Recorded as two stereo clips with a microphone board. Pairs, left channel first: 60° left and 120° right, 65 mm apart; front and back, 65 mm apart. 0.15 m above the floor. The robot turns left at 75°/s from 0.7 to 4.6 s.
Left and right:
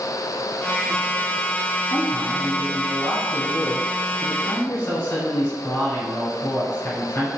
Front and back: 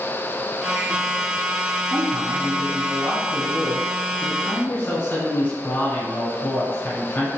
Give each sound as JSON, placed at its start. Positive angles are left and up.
{"t": 1.9, "sound": "a man speaking", "azimuth_deg": -135, "distance_m": 1.2}